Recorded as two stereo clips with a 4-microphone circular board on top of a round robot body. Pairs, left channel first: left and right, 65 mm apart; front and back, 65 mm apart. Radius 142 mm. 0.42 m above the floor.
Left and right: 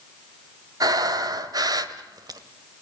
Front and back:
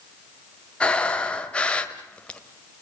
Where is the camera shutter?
No camera shutter in this recording.